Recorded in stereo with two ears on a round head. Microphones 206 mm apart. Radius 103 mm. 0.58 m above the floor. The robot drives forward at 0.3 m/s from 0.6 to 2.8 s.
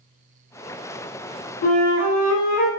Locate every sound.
1.6 s a flute: 80° left, 0.7 m; by 2.7 s 65° left (ahead or behind), 0.7 m